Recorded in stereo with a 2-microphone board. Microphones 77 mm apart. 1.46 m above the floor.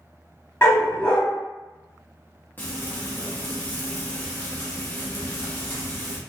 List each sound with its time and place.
0.6 s a dog barking: 30° left (ahead or behind), 1.4 m
2.6 s frying: 25° left (ahead or behind), 0.9 m